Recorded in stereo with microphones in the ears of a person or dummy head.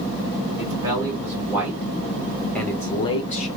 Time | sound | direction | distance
0.6 | a man speaking | 15° right (ahead or behind) | 2 m